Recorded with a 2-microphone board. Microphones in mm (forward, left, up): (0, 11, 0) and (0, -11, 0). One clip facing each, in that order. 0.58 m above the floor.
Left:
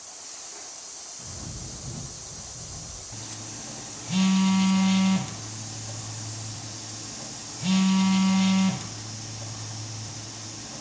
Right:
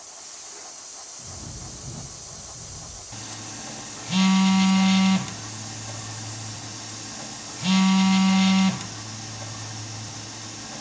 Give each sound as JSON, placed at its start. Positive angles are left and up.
{"t": 1.2, "sound": "a bird", "side_deg": 5, "distance_m": 7.5}
{"t": 3.1, "sound": "a phone buzzing", "side_deg": -25, "distance_m": 1.0}